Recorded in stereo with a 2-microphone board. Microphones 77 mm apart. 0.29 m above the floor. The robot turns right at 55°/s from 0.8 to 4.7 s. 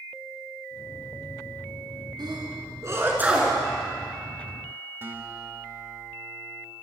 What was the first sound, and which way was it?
A sneeze, 70° right (ahead or behind).